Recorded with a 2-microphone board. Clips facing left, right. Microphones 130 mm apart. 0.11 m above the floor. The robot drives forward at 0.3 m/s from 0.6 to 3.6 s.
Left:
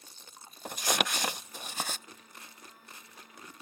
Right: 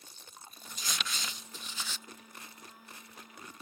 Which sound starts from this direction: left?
Crumpling, at 0.7 s.